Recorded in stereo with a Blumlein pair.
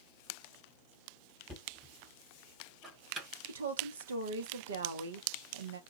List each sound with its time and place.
1.5 s knocking: 10° right, 1.0 m
3.5 s a woman speaking: 70° right, 0.7 m